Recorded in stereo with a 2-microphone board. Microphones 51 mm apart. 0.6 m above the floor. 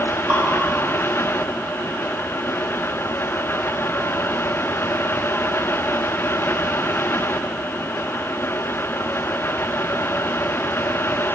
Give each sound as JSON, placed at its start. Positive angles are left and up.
{"t": 0.3, "sound": "dripping", "side_deg": -40, "distance_m": 1.5}